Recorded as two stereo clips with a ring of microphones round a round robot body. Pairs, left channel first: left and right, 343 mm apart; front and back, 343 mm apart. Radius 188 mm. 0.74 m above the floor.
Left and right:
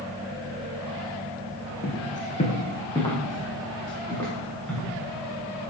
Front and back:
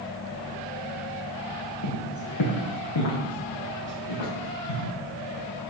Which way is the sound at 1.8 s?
25° left.